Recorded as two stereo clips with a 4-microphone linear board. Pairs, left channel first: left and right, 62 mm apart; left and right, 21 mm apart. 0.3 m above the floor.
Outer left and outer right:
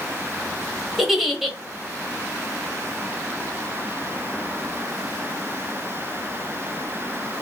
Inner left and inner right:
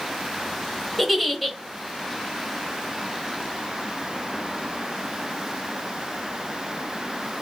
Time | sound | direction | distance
1.0 | a giggle | 5° right (ahead or behind) | 1.1 m